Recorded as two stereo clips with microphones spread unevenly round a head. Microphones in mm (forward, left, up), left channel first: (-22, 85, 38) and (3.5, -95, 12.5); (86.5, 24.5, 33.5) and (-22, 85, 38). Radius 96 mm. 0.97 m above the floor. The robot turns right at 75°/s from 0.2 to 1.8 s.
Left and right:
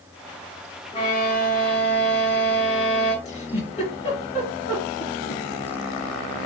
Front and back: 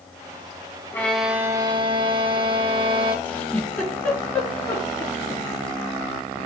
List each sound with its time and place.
0.9 s a violin: 40° left, 1.5 m; by 3.1 s 105° left, 1.5 m
3.2 s a giggle: 45° left, 3 m